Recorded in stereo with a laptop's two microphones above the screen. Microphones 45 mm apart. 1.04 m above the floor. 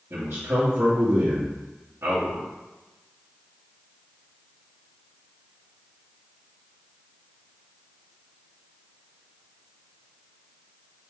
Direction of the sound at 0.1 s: 75° right (ahead or behind).